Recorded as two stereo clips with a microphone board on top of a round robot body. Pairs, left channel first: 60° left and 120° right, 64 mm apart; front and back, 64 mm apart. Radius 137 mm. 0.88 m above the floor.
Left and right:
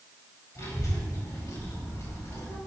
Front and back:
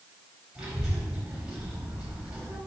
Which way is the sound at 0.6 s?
100° left.